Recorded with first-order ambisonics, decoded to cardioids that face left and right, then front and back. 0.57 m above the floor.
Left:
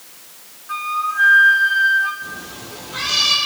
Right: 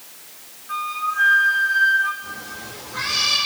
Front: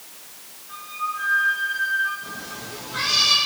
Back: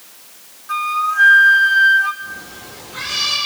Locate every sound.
0.7 s a flute: 170° left, 0.6 m
2.2 s a cat meowing: 90° left, 5 m